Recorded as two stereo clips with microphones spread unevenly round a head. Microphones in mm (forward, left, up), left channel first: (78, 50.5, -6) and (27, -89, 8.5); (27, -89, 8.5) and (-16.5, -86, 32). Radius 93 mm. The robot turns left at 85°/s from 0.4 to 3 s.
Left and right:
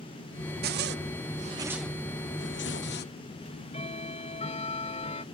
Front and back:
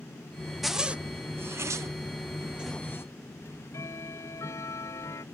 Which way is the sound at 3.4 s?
20° left.